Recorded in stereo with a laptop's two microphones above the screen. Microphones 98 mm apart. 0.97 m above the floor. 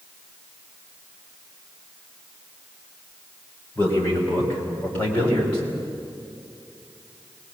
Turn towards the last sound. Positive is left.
turn(degrees=15)  # may be behind; listen again after turning